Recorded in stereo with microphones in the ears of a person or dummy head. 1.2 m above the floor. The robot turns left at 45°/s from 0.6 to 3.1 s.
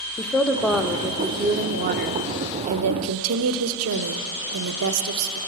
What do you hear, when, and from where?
0.2 s a woman speaking: 5° left, 0.7 m; by 5.4 s 110° right, 0.7 m